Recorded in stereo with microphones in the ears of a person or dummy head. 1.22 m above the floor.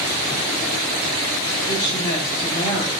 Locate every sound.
1.7 s a woman speaking: 20° left (ahead or behind), 0.9 m